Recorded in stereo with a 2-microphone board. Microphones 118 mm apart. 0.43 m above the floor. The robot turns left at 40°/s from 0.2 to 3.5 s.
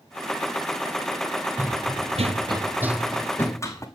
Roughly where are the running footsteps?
Centre.